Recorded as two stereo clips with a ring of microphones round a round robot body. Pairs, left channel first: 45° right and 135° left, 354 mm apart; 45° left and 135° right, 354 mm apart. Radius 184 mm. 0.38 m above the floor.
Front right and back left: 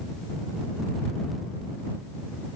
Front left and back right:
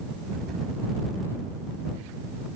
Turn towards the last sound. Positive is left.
No sound to turn to.